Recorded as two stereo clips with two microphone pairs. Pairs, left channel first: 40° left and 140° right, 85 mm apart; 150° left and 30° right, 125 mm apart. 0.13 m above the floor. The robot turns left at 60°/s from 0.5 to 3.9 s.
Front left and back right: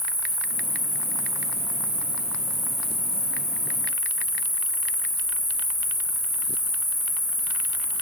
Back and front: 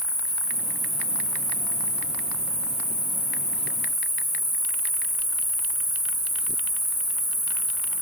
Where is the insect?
95° right, 1.7 m; by 8.0 s 60° left, 1.7 m.